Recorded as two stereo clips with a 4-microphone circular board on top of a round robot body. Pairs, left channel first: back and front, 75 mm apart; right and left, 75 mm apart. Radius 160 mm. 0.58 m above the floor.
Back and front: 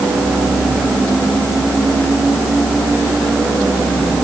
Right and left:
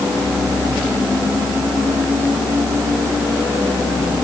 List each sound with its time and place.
Only background noise.